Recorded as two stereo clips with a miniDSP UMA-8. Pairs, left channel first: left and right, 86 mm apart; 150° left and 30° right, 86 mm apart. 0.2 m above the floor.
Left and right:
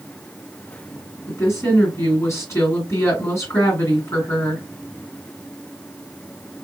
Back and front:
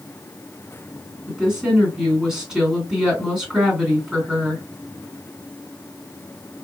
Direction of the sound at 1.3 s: 50° left.